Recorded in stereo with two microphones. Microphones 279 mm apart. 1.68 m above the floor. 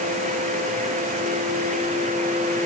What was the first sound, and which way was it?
Only background noise.